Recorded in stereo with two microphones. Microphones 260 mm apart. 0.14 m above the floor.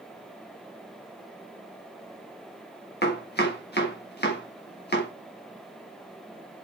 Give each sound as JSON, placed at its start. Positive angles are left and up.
{"t": 3.0, "sound": "chopping", "side_deg": 40, "distance_m": 5.0}